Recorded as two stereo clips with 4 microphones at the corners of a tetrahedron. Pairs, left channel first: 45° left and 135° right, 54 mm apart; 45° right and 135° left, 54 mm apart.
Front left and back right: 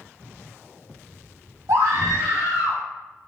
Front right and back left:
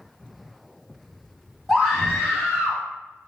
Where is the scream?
130° right, 1.4 m.